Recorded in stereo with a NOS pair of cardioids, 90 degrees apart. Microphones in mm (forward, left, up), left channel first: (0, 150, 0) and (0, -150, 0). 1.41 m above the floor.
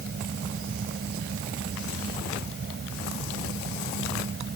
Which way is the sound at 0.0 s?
35° right.